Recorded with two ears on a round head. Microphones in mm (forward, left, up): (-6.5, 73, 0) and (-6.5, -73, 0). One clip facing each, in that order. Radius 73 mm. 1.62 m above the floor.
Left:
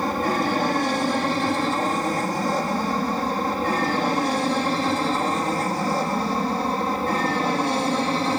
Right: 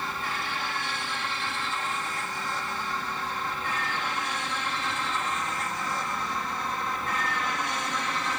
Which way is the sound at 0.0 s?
40° left (ahead or behind).